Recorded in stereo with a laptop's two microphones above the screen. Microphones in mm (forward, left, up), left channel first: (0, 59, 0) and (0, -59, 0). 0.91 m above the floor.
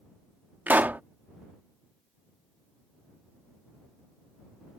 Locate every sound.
0.7 s a pop: 15° right (ahead or behind)